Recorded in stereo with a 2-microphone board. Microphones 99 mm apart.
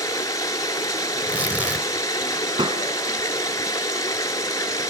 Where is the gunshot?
60° right (ahead or behind), 1.2 m.